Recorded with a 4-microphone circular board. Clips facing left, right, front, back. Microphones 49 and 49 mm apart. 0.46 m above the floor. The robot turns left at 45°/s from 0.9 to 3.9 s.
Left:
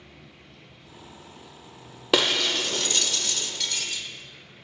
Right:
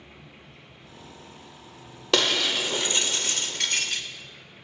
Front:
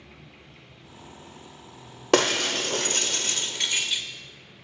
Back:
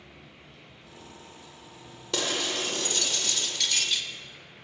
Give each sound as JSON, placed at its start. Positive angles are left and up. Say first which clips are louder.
{"t": 0.0, "sound": "an insect", "louder": "right 1 dB, front 1 dB", "azimuth_deg": -45, "distance_m": 3.5}
{"t": 2.1, "sound": "breaking glass", "louder": "left 1 dB, front 8 dB", "azimuth_deg": 10, "distance_m": 0.7}